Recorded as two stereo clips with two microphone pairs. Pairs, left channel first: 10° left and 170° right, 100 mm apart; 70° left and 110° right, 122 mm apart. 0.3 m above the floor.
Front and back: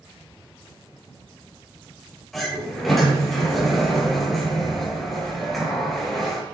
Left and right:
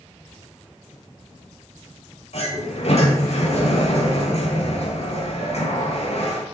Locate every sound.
2.3 s a sliding door: 100° left, 6 m